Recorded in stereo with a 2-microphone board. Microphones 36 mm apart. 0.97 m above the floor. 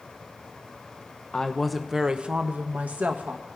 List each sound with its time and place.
1.3 s a woman speaking: 20° left (ahead or behind), 0.5 m; by 3.5 s 50° right (ahead or behind), 1.1 m